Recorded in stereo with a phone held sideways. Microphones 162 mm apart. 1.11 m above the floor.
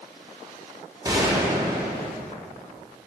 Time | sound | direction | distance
1.1 | a gunshot | 25° right (ahead or behind) | 1.1 m